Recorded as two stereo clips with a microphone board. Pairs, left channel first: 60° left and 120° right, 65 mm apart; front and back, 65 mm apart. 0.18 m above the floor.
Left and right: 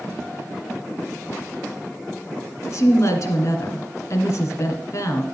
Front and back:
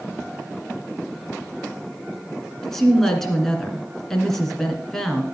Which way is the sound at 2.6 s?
85° left.